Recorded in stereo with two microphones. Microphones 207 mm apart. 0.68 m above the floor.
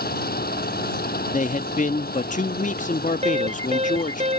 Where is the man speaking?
40° left (ahead or behind).